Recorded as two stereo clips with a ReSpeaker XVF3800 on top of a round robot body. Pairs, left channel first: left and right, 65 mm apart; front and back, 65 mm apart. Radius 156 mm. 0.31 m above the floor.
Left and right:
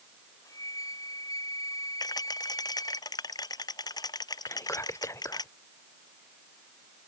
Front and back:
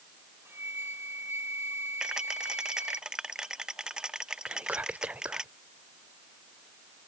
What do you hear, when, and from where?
0.5 s a flute: 125° left
2.0 s a rattle: 100° left
4.5 s whispering: 115° left